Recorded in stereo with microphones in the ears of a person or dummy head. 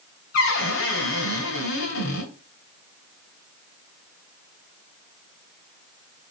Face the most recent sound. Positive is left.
turn(degrees=75)  # may be behind; listen again after turning